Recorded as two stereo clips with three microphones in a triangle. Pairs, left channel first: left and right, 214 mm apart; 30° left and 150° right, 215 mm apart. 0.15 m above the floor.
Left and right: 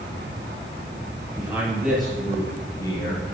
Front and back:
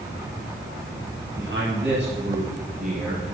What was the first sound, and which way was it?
A man speaking, 165° right.